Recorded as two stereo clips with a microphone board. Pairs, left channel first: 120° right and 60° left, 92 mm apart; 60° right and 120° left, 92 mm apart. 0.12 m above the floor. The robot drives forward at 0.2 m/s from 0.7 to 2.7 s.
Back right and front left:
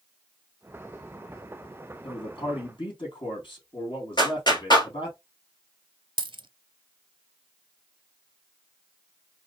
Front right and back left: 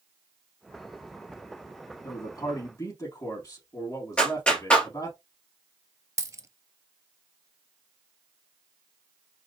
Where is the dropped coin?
70° left, 0.5 m.